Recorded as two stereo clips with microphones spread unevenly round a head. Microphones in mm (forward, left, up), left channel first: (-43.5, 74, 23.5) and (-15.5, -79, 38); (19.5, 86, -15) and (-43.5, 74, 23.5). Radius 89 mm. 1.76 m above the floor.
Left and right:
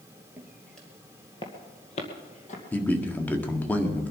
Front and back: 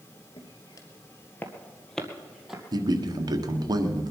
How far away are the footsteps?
About 2 m.